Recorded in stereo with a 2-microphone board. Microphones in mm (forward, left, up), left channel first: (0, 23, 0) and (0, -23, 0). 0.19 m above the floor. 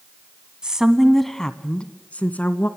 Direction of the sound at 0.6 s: 20° right (ahead or behind).